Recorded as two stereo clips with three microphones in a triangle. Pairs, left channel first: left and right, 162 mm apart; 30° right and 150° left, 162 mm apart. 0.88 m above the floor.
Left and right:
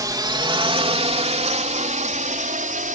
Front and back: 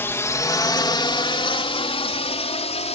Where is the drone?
80° right; by 3.0 s 70° right.